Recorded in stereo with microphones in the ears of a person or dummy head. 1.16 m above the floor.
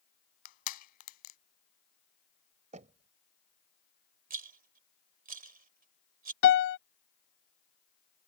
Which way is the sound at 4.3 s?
50° right (ahead or behind).